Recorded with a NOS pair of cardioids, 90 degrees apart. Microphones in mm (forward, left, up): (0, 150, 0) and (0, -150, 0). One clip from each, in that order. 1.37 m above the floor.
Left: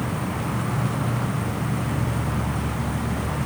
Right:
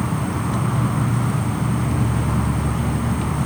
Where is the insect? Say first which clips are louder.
Right 3 dB; 30° right.